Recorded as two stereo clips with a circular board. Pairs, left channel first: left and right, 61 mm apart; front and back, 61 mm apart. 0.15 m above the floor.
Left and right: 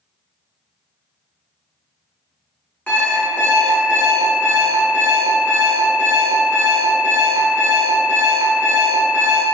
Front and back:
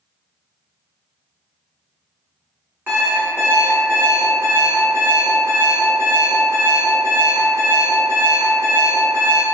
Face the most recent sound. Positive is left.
turn(degrees=150)